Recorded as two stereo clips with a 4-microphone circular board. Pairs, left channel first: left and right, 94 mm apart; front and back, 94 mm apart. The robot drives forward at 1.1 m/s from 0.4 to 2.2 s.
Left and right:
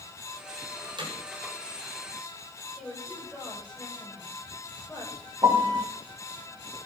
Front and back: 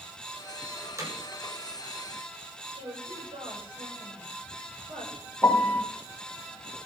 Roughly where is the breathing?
No breathing in this recording.